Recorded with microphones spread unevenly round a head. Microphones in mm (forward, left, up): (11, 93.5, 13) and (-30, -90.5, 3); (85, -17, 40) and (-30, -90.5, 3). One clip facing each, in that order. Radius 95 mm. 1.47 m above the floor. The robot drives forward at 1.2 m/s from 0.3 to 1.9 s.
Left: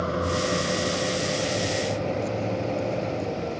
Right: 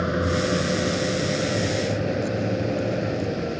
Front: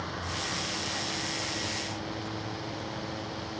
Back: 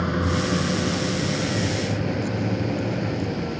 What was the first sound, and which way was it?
A vehicle, 175° right.